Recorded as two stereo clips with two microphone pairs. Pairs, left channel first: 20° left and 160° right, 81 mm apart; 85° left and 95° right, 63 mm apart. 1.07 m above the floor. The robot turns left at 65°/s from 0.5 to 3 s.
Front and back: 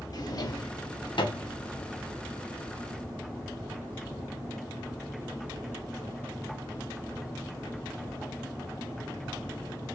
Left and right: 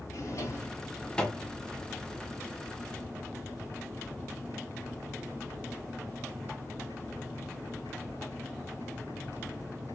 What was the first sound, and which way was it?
A drawer, 55° left.